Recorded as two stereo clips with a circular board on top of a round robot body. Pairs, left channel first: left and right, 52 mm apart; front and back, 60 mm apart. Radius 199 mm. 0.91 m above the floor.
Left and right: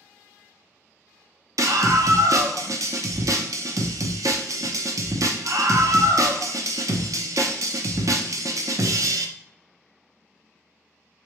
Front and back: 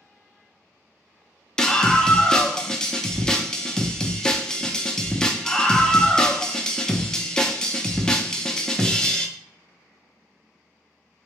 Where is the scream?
80° right, 0.5 m.